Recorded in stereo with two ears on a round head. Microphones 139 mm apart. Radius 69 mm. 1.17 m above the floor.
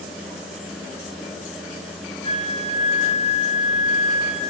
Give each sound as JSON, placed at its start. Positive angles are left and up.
{"t": 2.2, "sound": "a flute", "side_deg": -60, "distance_m": 3.5}